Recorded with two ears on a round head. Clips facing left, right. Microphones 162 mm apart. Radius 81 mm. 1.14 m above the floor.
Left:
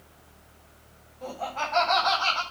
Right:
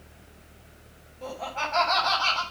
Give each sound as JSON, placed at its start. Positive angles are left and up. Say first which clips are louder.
{"t": 1.2, "sound": "laughter", "louder": "left 1 dB", "side_deg": 0, "distance_m": 7.5}